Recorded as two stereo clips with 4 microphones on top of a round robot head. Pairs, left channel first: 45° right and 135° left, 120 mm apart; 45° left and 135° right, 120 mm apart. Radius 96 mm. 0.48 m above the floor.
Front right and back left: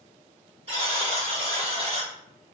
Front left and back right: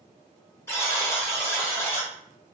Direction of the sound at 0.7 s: 110° left.